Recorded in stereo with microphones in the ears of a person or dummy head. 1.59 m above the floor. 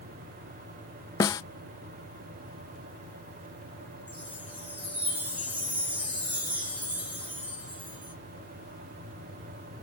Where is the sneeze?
No sneeze in this recording.